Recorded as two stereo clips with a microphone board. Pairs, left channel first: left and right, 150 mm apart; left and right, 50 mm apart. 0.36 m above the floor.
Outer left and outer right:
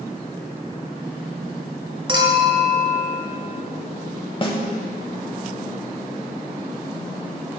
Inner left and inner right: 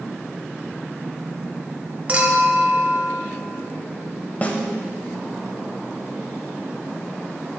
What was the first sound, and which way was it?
A clink, 30° right (ahead or behind).